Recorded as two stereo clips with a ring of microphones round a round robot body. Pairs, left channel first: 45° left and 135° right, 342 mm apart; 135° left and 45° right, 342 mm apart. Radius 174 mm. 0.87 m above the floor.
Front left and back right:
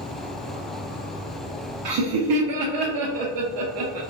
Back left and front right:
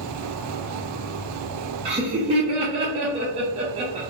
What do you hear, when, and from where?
0.0 s an insect: 70° left, 1.0 m
1.9 s laughter: 120° right, 0.6 m